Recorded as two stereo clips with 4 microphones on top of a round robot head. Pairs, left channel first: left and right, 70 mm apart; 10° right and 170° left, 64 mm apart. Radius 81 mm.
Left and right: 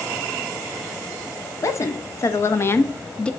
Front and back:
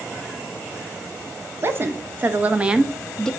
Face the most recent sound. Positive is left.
turn(degrees=40)